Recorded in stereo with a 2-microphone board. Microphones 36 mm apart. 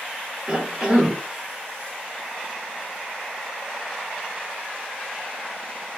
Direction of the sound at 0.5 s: 20° right (ahead or behind).